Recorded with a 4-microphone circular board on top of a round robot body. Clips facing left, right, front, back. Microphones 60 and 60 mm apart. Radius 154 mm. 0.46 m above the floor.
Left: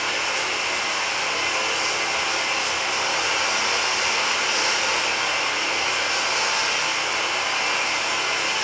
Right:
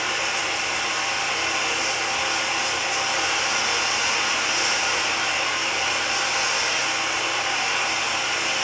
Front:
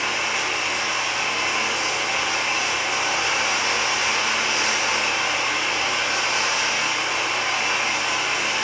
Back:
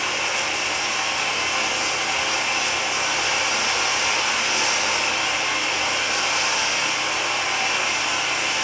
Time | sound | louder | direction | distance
0.0 | running water | even, even | 60° left | 1.0 m